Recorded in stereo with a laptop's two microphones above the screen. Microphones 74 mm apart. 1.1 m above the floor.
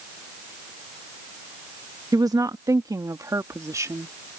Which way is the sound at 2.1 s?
60° right (ahead or behind).